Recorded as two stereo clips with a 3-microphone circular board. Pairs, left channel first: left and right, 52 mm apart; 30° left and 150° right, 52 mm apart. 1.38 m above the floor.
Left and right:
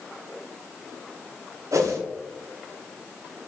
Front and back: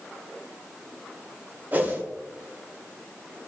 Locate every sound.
1.7 s a whoosh: 90° right, 0.7 m